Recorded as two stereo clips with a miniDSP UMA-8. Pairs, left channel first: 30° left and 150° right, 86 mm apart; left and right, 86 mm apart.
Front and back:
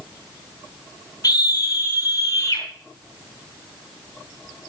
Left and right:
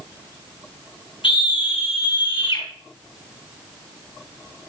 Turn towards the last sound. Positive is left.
turn(degrees=85)